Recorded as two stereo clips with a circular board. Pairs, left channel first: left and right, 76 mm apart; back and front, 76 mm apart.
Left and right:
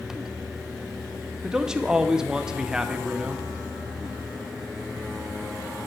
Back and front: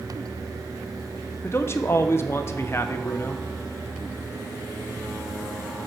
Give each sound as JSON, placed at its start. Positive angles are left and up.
{"t": 1.4, "sound": "a man speaking", "azimuth_deg": -165, "distance_m": 0.5}